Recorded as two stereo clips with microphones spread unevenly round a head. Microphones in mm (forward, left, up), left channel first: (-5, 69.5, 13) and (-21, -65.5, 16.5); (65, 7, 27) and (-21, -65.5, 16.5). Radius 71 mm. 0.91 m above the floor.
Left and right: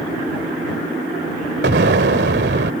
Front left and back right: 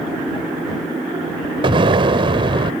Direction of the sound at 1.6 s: 95° right.